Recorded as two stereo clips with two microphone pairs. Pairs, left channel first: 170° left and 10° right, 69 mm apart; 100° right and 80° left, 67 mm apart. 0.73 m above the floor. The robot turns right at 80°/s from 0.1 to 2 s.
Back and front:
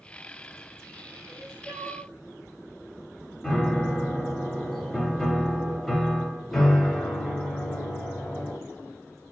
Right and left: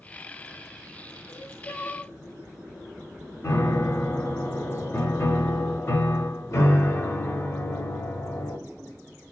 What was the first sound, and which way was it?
Crying, 105° right.